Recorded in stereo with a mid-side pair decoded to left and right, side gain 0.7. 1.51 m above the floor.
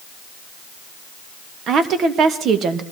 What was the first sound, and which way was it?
A woman speaking, 45° right.